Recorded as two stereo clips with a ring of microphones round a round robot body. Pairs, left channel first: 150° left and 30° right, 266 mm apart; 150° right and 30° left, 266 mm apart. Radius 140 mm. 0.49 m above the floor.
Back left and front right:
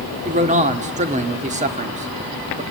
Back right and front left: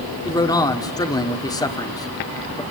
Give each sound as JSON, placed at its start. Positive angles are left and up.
{"t": 0.2, "sound": "a man speaking", "azimuth_deg": -80, "distance_m": 1.4}